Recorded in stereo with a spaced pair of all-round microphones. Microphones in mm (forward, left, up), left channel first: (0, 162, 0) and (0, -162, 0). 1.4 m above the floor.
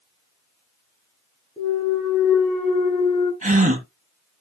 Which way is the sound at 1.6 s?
15° left (ahead or behind).